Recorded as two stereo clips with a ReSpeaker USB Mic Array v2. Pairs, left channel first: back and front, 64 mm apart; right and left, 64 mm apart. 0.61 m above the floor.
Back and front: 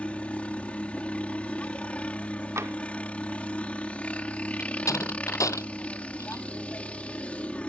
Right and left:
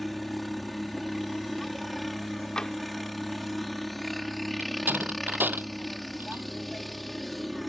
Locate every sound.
0.0 s a helicopter: 175° right
2.6 s tapping: 15° right
4.6 s a door slam: 150° left